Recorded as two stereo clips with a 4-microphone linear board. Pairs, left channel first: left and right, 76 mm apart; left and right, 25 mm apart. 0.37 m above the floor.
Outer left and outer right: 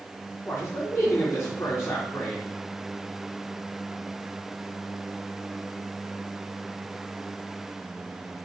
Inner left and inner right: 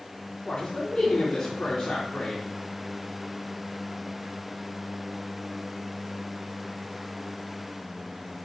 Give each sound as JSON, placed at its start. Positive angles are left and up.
{"t": 0.5, "sound": "a man speaking", "side_deg": 35, "distance_m": 3.0}